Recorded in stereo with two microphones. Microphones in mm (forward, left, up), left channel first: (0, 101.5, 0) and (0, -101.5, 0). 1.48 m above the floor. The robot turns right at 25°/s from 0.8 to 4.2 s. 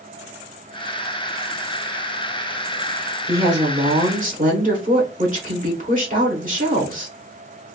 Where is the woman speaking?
20° right (ahead or behind), 1.1 m; by 7.1 s 40° right (ahead or behind), 1.1 m.